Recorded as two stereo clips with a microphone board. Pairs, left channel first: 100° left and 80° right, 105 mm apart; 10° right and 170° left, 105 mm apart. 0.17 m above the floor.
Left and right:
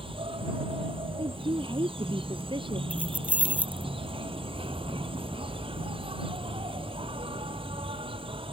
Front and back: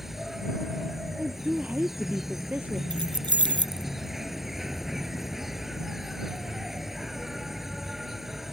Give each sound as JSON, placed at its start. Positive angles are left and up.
{"t": 0.0, "sound": "an insect", "azimuth_deg": -105}
{"t": 1.2, "sound": "a woman speaking", "azimuth_deg": -115}
{"t": 2.9, "sound": "keys jangling", "azimuth_deg": -155}